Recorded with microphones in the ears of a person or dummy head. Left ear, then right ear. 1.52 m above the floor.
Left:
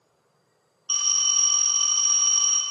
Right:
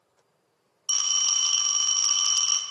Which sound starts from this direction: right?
A phone ringing, at 0.9 s.